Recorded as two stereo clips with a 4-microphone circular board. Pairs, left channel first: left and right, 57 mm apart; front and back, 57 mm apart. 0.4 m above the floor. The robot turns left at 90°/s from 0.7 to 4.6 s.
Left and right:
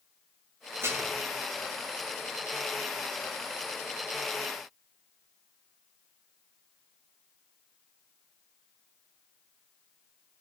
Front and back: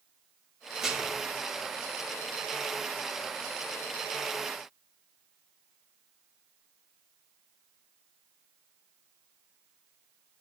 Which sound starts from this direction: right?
Dishes clattering, at 0.8 s.